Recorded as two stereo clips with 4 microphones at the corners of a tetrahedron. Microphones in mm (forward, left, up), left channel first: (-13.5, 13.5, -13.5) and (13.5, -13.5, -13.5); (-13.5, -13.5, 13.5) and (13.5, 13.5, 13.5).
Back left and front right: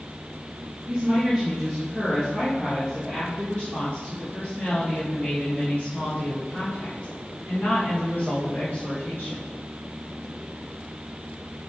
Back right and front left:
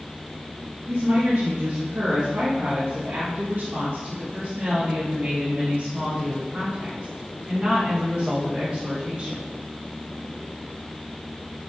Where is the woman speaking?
40° left, 2 m; by 9.5 s 100° left, 6 m.